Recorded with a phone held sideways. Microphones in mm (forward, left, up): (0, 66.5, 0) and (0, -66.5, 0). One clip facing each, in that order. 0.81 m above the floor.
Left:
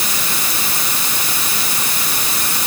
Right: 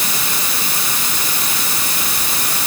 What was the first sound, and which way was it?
Only background noise.